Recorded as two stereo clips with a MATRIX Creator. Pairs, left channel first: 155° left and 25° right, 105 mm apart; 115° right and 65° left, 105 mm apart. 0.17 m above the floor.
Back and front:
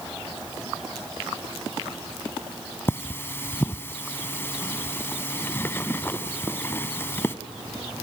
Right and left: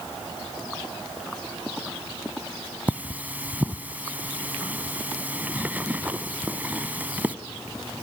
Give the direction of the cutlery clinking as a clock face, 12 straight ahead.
8 o'clock.